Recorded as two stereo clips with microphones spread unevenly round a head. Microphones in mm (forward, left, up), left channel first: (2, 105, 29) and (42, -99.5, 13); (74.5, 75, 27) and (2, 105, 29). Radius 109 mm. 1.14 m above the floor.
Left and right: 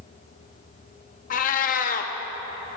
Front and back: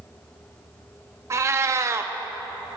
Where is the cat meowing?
125° left, 0.6 m.